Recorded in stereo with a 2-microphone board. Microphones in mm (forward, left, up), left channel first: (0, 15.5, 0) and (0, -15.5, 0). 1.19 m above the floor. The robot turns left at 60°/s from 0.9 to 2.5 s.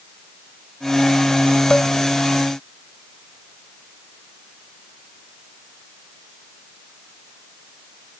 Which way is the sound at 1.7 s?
45° left (ahead or behind).